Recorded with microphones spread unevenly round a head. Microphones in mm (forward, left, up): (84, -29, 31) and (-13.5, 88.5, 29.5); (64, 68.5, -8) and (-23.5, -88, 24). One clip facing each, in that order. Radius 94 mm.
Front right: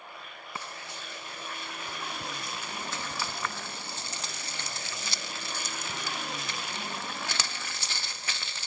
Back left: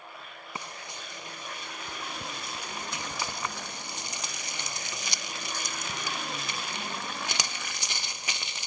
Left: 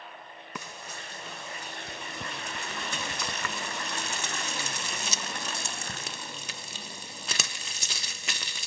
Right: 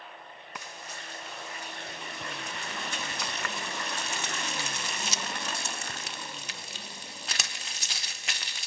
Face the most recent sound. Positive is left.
turn(degrees=55)